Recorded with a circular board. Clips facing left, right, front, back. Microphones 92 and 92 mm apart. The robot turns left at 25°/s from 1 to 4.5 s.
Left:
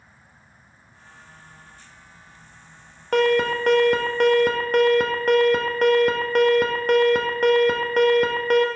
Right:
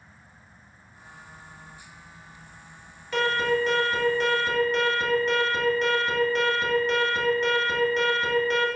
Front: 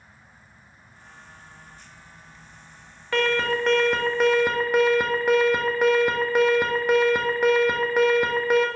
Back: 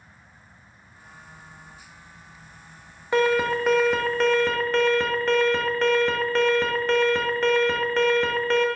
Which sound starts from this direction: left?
An alarm, at 3.1 s.